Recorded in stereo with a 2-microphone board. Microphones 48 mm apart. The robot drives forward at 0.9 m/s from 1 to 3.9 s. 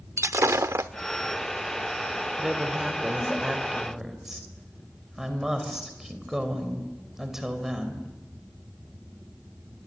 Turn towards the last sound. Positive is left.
turn(degrees=-10)  # may be behind; listen again after turning